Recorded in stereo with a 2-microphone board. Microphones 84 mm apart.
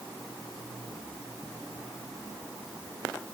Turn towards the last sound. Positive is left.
No sound to turn to.